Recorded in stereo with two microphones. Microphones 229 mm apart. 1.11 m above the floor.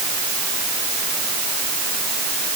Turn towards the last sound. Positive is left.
No sound to turn to.